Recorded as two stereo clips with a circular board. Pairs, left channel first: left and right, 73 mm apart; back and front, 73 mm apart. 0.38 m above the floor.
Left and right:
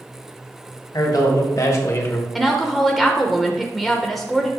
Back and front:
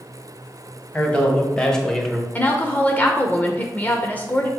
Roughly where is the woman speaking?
Behind.